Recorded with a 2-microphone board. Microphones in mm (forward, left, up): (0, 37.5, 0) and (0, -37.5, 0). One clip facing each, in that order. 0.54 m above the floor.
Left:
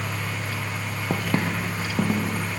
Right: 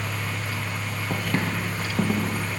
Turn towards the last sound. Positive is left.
turn(degrees=0)  # may be behind; listen again after turning